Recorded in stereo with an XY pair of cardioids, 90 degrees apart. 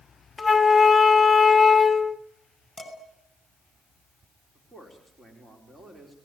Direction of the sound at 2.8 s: 15° left.